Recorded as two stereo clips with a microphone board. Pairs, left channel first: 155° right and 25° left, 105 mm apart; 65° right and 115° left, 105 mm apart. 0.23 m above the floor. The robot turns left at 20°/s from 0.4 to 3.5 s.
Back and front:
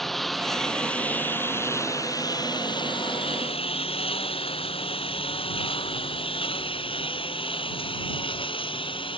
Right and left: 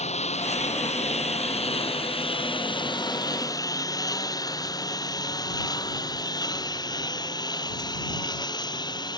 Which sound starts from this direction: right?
A lawn mower, at 0.0 s.